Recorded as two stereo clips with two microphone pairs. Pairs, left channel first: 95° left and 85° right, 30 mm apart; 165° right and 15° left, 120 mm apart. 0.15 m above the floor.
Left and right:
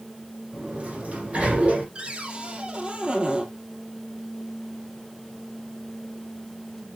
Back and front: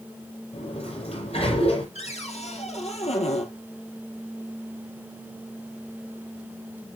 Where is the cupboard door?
140° right, 2 m.